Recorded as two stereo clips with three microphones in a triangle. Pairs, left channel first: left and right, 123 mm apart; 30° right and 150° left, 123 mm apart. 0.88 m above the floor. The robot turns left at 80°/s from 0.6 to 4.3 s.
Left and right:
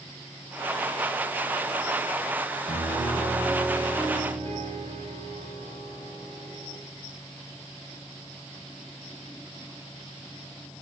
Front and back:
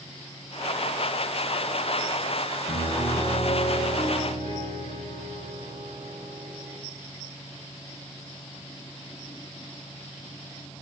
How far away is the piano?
About 3 m.